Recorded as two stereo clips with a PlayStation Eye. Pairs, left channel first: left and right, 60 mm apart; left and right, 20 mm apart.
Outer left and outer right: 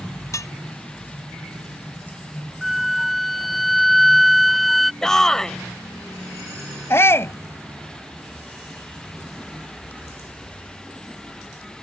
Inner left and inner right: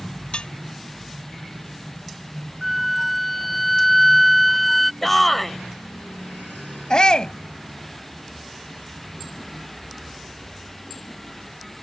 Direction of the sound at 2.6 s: Centre (ahead or behind).